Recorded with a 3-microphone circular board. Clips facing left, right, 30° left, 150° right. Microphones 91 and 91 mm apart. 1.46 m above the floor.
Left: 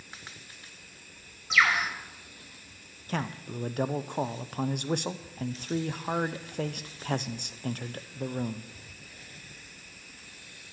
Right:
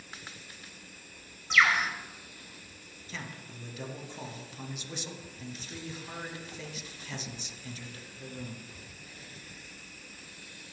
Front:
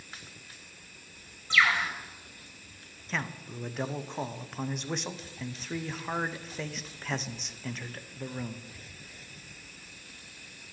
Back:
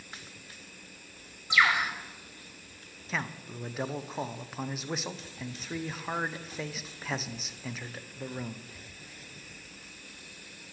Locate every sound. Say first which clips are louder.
1.5 s a bird: even, back 1 dB; 175° left, 1.3 m
3.1 s a man speaking: left 10 dB, even; 125° left, 0.5 m